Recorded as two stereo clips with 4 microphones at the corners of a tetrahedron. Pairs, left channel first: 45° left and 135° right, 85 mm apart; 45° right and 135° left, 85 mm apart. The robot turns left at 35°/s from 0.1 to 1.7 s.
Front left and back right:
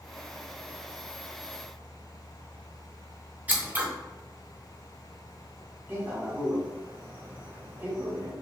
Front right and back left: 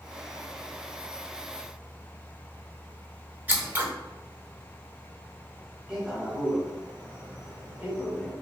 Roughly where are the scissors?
Behind.